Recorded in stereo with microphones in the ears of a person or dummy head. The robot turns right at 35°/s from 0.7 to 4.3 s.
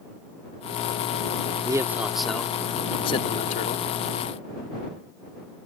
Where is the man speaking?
15° right; by 3.9 s 65° left.